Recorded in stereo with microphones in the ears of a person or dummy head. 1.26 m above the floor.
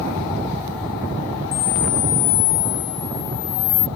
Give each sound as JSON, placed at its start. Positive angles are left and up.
{"t": 1.5, "sound": "a camera shutter", "side_deg": 40}